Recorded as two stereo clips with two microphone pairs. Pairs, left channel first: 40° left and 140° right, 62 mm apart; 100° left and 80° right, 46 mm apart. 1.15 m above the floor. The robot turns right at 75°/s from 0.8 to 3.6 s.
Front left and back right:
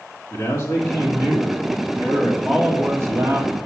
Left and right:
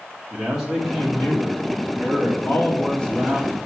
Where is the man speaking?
5° left, 2.5 m; by 3.6 s 145° right, 2.5 m.